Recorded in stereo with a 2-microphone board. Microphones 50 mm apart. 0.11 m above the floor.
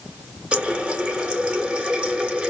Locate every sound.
0.5 s a running tap: 20° right (ahead or behind), 0.8 m